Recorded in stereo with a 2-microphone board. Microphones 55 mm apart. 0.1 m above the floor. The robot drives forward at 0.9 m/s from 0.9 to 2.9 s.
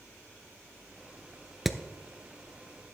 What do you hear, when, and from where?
1.6 s hammering: 5° right (ahead or behind), 0.6 m